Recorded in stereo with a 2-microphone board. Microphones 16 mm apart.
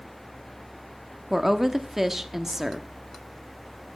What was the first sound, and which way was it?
A woman speaking, 10° right (ahead or behind).